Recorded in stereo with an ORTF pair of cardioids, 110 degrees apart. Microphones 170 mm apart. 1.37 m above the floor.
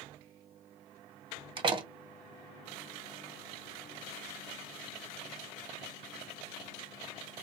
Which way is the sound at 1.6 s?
30° right.